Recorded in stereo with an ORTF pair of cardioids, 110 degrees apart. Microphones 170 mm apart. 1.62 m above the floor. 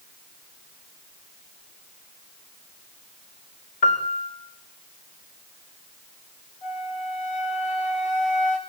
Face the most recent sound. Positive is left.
turn(degrees=50)